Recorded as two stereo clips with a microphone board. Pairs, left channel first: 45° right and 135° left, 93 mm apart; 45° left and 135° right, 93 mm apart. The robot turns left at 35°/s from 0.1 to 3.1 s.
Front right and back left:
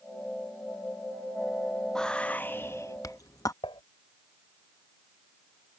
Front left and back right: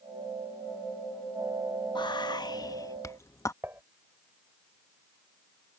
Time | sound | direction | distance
1.9 | whispering | 40° left | ?
3.6 | dishes clattering | 70° right | ?